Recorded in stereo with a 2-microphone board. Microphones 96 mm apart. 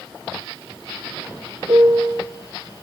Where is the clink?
I don't hear a clink.